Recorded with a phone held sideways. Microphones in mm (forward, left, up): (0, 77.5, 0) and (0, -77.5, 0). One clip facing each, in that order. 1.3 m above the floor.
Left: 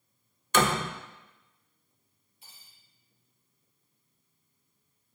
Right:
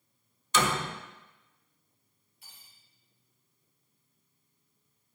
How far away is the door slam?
About 0.8 m.